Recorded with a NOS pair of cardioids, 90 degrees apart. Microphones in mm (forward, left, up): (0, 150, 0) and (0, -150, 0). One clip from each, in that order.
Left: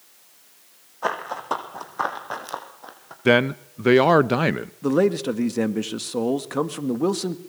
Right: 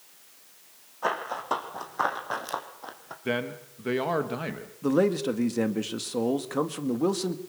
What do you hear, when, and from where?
1.0 s running footsteps: 20° left, 4.5 m; by 3.1 s 15° right, 3 m
3.2 s a man speaking: 60° left, 0.7 m
4.8 s a man speaking: 20° left, 1.8 m